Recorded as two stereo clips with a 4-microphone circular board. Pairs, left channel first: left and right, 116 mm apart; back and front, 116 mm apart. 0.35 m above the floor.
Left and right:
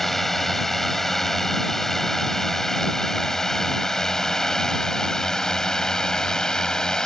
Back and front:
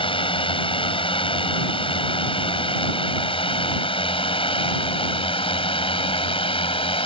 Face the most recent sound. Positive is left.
turn(degrees=170)